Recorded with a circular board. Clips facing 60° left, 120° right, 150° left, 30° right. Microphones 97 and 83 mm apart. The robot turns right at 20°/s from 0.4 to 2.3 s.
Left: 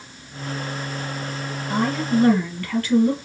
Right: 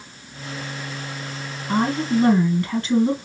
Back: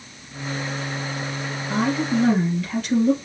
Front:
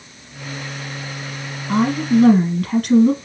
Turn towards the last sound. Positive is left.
turn(degrees=-50)